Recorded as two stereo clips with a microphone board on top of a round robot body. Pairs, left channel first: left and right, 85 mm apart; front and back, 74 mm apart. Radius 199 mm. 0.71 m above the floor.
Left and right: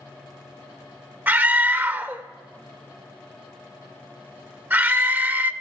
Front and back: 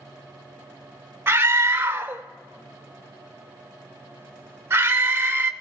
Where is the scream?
140° right, 0.8 m.